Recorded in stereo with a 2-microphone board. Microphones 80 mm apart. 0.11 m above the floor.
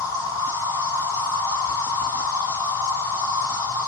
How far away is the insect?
About 2 m.